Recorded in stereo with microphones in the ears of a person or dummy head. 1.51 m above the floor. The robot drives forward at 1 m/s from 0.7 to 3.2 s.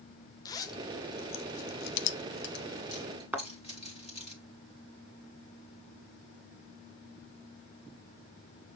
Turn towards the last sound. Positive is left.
turn(degrees=0)  # may be behind; listen again after turning